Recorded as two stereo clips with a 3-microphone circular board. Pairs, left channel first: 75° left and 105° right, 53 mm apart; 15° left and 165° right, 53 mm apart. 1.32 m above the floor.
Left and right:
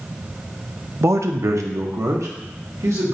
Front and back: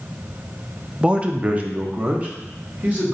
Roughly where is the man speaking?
Right.